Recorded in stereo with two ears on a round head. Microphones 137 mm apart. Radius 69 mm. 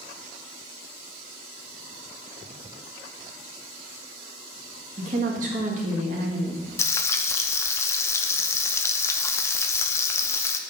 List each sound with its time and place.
5.0 s a woman speaking: 55° right (ahead or behind), 1.6 m
6.8 s frying: 20° left (ahead or behind), 0.6 m